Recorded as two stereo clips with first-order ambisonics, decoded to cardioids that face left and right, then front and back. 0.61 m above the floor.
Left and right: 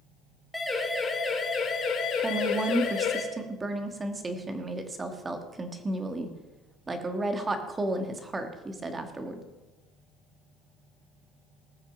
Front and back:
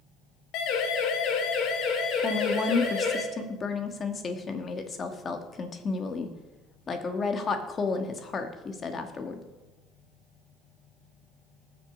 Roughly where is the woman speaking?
Ahead right.